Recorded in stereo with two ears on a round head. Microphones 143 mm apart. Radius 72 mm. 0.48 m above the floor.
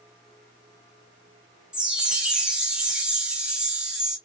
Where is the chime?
5° right (ahead or behind), 1.1 m.